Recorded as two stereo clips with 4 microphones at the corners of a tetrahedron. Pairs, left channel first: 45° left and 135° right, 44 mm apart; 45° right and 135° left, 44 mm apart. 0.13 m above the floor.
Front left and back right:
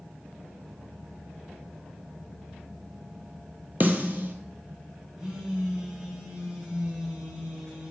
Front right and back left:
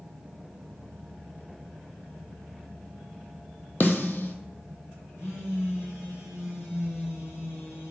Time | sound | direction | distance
3.8 | a snare drum | 90° right | 0.5 m
5.2 | a phone buzzing | 65° right | 1.7 m